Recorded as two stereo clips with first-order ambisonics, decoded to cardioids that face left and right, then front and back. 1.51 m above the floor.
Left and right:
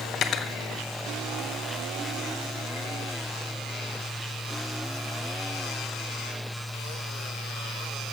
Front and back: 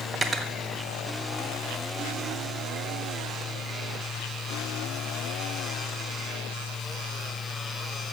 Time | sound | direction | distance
0.1 | cutlery clinking | 120° left | 0.7 m